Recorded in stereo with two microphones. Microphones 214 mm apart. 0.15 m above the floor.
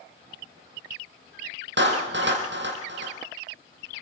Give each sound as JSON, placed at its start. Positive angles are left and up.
{"t": 1.8, "sound": "a clap", "side_deg": -60, "distance_m": 5.0}